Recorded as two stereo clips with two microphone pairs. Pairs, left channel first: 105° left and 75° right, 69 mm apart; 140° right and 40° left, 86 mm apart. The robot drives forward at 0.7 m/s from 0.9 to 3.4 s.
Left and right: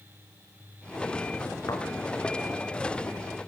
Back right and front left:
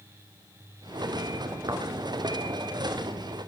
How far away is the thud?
About 2 m.